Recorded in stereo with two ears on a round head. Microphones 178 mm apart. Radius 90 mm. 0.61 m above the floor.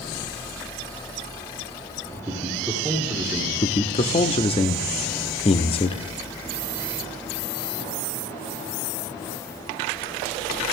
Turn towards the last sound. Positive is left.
turn(degrees=30)  # may be behind; listen again after turning